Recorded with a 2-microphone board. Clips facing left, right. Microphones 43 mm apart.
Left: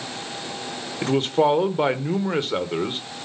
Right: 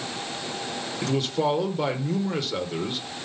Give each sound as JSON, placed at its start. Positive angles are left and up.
{"t": 1.0, "sound": "a man speaking", "side_deg": 35, "distance_m": 1.1}